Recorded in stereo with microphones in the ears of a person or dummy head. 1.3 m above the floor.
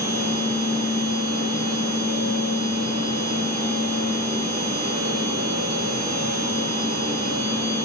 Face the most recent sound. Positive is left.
turn(degrees=-55)  # may be behind; listen again after turning